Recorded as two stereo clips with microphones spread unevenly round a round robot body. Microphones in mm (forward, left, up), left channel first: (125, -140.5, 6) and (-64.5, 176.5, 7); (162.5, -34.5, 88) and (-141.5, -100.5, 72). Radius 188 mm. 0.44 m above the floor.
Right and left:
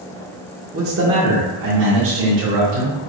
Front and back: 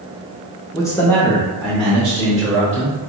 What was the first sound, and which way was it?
A man speaking, 85° left.